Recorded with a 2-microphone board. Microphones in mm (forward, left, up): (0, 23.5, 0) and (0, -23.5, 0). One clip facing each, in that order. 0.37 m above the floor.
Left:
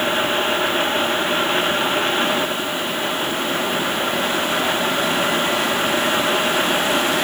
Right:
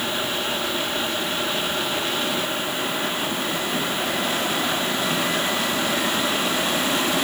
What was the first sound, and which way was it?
Only background noise.